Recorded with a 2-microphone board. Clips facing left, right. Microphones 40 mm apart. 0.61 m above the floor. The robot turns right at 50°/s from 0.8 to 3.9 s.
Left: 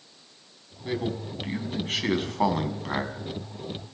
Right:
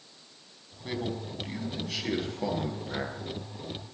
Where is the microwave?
I don't hear a microwave.